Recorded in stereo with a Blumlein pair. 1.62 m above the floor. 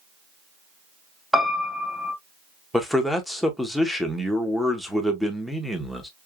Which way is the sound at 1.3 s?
5° right.